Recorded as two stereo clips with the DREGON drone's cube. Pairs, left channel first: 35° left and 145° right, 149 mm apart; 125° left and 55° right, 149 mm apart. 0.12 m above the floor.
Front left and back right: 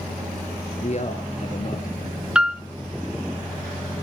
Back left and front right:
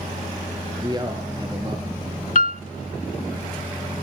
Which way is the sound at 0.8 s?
5° left.